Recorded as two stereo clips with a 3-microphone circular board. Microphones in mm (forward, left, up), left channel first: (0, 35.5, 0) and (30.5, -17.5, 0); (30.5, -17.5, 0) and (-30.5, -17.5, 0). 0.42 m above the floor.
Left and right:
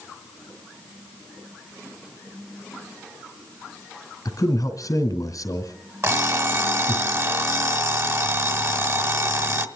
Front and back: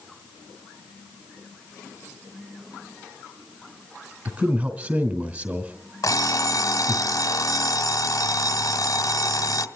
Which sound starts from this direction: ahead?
An alarm clock, at 6.0 s.